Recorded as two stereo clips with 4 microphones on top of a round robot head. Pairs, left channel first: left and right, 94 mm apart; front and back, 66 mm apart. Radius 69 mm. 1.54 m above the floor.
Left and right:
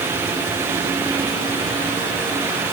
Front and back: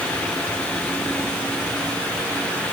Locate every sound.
Only background noise.